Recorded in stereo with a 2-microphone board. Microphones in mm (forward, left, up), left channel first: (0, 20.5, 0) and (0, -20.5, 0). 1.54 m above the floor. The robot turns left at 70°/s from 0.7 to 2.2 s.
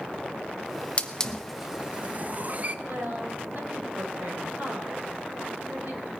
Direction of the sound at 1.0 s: 30° left (ahead or behind).